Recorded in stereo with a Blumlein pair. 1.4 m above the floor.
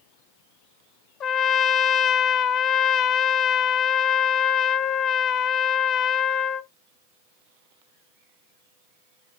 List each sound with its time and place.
1.2 s a trumpet: 35° left, 0.8 m